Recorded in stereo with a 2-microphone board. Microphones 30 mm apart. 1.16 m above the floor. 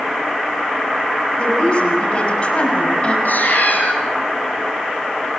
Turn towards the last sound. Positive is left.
turn(degrees=75)  # may be behind; listen again after turning